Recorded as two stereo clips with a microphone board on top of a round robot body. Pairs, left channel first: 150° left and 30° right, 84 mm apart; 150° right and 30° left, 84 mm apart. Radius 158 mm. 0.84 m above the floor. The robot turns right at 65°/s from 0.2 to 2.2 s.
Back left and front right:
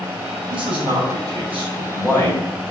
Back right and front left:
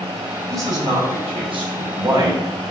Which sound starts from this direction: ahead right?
A man speaking, at 0.5 s.